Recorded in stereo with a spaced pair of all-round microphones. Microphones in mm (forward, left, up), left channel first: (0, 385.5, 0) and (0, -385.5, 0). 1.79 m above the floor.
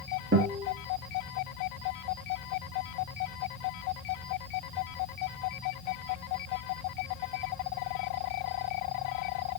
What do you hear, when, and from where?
0.3 s a guitar: 15° right (ahead or behind), 4 m